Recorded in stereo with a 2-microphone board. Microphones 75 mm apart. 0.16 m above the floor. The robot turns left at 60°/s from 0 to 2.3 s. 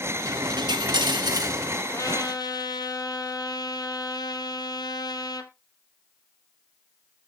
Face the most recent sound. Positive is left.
turn(degrees=60)  # may be behind; listen again after turning